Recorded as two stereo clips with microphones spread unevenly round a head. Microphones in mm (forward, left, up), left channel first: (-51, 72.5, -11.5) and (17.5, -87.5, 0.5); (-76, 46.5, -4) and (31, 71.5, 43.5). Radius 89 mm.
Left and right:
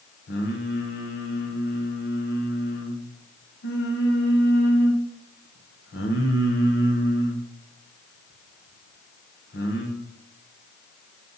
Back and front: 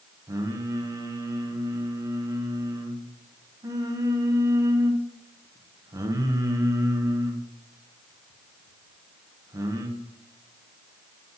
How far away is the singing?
About 1.2 m.